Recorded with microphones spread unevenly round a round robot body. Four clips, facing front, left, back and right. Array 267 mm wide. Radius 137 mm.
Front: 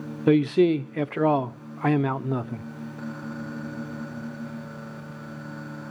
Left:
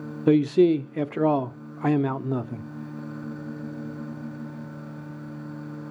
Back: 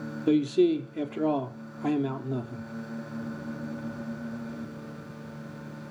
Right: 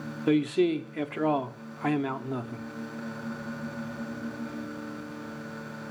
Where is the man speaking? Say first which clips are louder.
Left 6 dB, front 3 dB; 100° left, 0.7 m.